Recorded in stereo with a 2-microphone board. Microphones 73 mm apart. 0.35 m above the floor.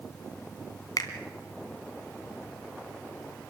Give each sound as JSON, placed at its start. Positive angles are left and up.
{"t": 1.0, "sound": "a finger snap", "side_deg": 60, "distance_m": 2.5}